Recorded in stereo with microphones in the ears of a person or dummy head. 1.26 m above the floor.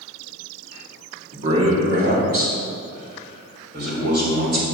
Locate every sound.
1.3 s a man speaking: 40° right (ahead or behind), 2 m; by 4.6 s 50° right (ahead or behind), 4 m